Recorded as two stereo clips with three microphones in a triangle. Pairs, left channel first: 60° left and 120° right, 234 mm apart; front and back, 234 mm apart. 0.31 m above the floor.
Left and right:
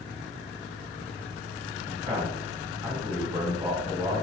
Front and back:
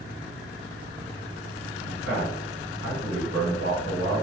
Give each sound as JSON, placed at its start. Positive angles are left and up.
{"t": 1.8, "sound": "a man speaking", "azimuth_deg": 175, "distance_m": 1.8}